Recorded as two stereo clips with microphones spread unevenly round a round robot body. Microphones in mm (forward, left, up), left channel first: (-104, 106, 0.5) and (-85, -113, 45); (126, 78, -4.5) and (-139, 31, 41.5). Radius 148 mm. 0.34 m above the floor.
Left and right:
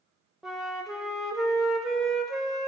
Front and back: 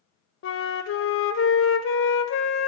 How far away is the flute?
About 0.6 m.